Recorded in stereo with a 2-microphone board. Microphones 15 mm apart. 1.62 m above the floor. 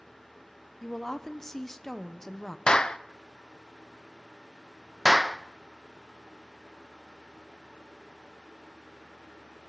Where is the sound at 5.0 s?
35° right (ahead or behind), 0.8 m.